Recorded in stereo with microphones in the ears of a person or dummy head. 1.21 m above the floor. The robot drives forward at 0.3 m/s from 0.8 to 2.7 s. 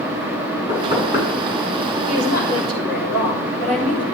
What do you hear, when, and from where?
0.7 s knocking: 60° left (ahead or behind), 7.5 m
2.1 s a woman speaking: 60° left (ahead or behind), 5.5 m